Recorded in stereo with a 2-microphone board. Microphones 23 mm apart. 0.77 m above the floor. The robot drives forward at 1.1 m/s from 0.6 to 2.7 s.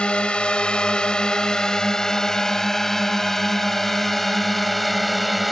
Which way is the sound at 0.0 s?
55° left (ahead or behind).